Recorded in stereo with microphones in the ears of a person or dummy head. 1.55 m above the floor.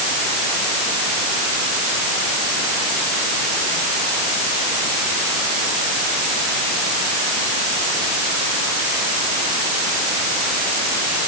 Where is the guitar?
I don't hear a guitar.